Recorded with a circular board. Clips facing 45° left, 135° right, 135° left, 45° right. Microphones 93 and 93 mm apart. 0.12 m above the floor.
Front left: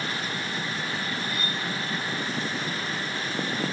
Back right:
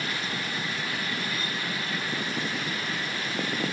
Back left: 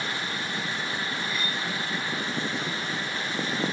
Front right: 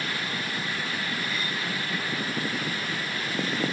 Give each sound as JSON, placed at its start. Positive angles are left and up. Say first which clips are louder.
{"t": 1.3, "sound": "cutlery clinking", "louder": "front left 1 dB, even", "azimuth_deg": 25, "distance_m": 1.6}